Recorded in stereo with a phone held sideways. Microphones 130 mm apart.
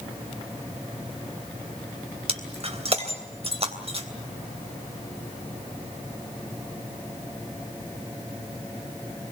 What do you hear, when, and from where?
2.3 s breaking glass: 50° right (ahead or behind), 3 m